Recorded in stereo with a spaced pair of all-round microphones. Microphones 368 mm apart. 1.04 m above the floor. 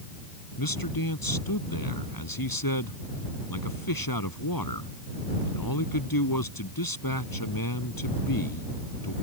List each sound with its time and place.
0.6 s a man speaking: 65° left (ahead or behind)